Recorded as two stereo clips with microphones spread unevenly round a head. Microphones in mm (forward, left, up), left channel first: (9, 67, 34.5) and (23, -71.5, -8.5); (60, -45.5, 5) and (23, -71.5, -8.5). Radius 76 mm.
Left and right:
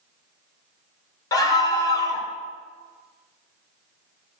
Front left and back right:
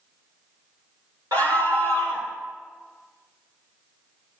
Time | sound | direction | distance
1.3 | a scream | 155° left | 1.4 m